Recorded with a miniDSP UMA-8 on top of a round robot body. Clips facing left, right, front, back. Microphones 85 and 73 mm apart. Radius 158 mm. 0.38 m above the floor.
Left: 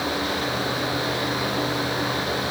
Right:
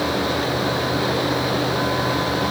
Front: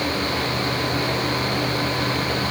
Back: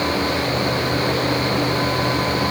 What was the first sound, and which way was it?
Only background noise.